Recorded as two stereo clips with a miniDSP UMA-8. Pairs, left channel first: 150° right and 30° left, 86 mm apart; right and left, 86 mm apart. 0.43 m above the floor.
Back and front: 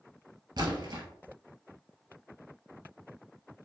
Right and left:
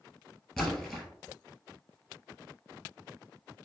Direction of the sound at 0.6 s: 5° right.